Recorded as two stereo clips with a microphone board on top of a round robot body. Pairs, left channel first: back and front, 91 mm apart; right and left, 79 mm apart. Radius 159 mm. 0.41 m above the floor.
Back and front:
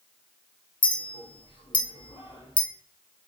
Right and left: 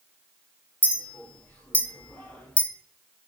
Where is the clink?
160° right, 1.0 m.